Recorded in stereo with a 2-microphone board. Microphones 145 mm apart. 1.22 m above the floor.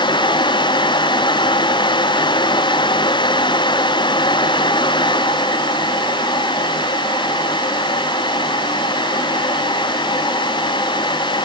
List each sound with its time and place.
Only background noise.